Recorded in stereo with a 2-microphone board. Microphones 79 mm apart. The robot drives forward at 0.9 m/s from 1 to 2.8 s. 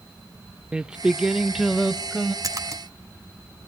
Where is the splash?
50° right (ahead or behind), 1.4 m; by 2.8 s 45° right (ahead or behind), 1.6 m.